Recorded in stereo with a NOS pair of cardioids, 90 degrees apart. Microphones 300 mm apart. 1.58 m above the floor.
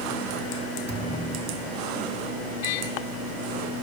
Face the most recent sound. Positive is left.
turn(degrees=-40)